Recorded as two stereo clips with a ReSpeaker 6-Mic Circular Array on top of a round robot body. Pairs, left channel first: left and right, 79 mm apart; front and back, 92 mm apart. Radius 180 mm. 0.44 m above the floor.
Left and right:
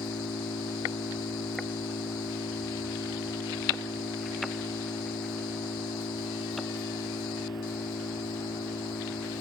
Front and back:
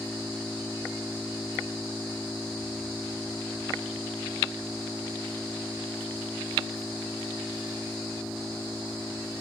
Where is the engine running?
85° left.